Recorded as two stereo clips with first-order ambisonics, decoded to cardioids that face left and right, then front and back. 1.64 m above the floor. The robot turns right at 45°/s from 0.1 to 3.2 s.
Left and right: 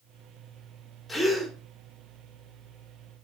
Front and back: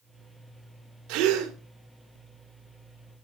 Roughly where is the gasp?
Behind.